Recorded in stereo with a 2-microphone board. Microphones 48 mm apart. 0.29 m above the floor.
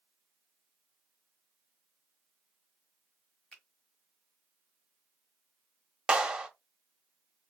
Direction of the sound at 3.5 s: 20° left (ahead or behind).